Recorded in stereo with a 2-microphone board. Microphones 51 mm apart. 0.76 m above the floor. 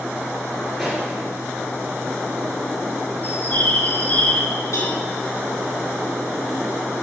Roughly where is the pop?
Centre.